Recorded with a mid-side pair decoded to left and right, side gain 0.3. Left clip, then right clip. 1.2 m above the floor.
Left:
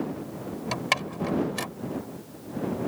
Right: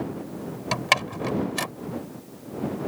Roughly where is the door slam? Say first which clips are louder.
Right 5 dB; ahead right.